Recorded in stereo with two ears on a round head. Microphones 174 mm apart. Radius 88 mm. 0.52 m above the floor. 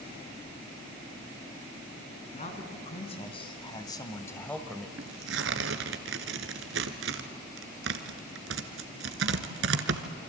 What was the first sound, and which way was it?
A man speaking, 40° left (ahead or behind).